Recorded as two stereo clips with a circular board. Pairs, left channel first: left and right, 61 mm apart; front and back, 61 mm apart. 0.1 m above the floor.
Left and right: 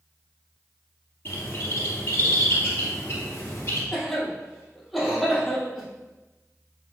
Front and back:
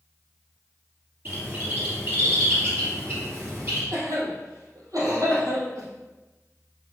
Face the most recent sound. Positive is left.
turn(degrees=180)